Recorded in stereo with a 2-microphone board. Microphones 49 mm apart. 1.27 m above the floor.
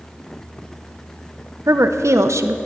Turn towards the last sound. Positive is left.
turn(degrees=-75)  # may be behind; listen again after turning